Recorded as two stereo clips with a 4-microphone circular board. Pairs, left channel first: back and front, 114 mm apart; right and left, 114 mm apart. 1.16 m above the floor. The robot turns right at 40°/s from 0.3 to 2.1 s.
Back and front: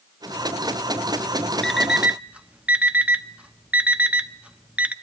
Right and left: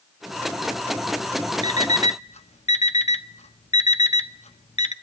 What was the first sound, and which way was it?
An alarm clock, 95° right.